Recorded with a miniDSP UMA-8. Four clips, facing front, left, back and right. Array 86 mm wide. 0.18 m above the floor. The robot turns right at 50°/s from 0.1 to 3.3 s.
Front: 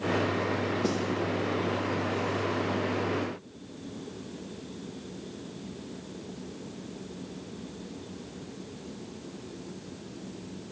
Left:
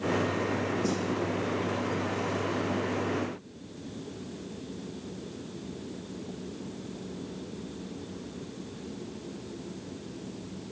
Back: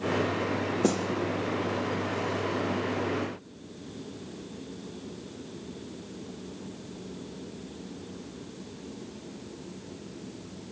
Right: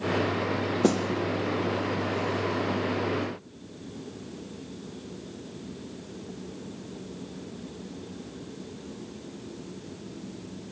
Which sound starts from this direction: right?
A snare drum, at 0.8 s.